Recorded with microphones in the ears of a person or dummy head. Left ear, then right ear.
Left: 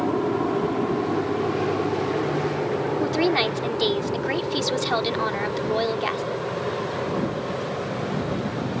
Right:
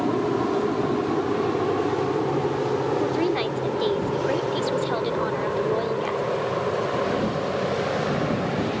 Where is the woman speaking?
40° left (ahead or behind).